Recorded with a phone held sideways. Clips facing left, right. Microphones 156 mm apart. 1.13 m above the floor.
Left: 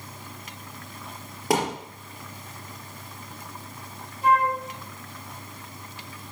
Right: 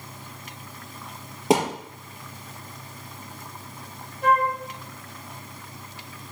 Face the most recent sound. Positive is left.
turn(degrees=-55)  # may be behind; listen again after turning